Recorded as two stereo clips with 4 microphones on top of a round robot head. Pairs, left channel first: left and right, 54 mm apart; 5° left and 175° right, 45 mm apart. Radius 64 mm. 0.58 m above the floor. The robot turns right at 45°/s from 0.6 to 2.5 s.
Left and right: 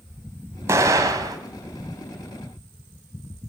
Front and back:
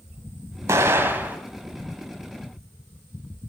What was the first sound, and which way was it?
An explosion, 140° right.